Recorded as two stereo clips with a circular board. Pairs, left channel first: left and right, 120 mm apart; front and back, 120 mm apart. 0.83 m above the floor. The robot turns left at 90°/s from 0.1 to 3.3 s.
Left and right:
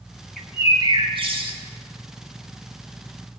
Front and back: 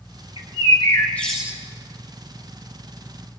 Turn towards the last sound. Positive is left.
turn(degrees=95)